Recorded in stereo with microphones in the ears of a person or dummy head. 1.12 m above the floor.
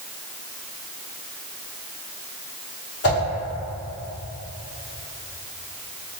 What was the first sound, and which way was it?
A whoosh, 55° left (ahead or behind).